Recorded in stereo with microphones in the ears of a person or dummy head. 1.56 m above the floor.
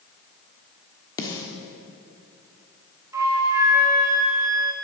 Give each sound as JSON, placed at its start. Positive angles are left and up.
{"t": 1.2, "sound": "a snare drum", "side_deg": 25, "distance_m": 1.3}
{"t": 3.1, "sound": "a flute", "side_deg": -15, "distance_m": 1.4}